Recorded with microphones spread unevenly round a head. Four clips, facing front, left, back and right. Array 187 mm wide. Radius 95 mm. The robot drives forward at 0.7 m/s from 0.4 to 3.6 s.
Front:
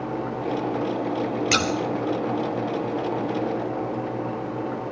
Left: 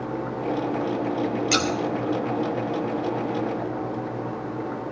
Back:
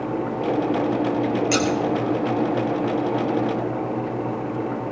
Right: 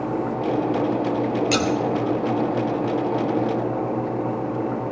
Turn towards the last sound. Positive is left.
turn(degrees=-175)